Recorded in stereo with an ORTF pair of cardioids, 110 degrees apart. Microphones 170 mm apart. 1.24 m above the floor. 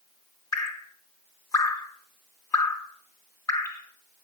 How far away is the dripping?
About 2 m.